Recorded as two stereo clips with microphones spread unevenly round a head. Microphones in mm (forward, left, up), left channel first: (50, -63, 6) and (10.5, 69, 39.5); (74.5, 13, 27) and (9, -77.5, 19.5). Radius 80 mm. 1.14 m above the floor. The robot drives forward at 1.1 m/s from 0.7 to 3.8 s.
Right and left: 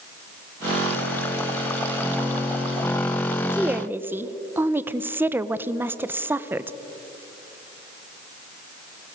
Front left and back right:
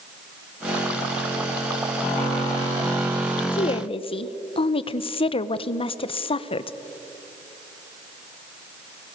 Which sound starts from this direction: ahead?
A woman speaking, at 3.5 s.